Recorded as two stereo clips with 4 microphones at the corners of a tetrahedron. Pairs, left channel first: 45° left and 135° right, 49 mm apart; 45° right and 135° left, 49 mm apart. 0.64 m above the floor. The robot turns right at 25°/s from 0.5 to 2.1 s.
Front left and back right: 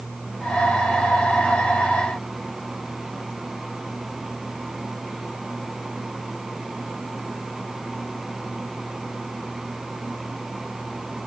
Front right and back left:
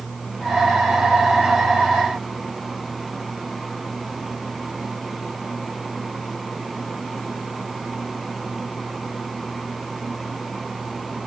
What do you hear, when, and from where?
Only background noise.